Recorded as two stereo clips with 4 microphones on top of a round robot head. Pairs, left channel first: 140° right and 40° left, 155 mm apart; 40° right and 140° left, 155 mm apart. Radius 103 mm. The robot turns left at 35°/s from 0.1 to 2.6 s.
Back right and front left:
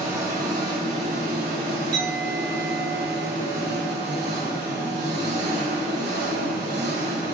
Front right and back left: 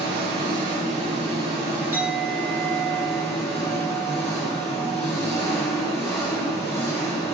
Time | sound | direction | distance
0.0 | an engine running | 120° left | 1.0 m
1.9 | a clink | 60° left | 1.1 m